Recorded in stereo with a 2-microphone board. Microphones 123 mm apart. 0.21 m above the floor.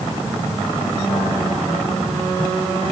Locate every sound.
Only background noise.